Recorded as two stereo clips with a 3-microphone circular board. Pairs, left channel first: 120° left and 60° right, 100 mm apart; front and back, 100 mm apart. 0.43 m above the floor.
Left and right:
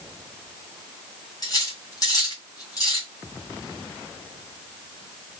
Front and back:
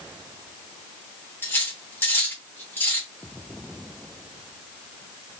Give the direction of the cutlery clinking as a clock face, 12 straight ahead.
10 o'clock.